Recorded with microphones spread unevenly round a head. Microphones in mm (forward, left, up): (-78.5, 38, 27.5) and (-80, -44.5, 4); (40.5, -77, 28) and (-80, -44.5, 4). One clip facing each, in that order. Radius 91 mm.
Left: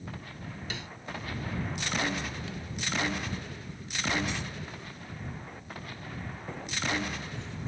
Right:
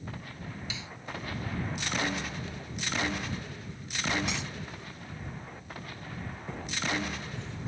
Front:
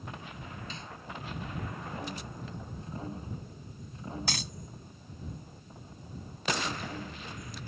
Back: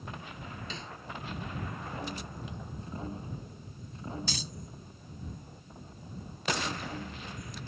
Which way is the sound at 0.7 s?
125° left.